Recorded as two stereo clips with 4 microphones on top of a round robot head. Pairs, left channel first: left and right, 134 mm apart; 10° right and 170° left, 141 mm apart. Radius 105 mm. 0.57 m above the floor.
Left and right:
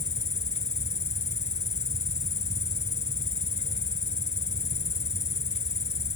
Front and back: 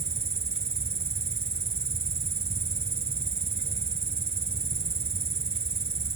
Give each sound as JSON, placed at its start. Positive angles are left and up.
{"t": 0.0, "sound": "an insect", "azimuth_deg": 130}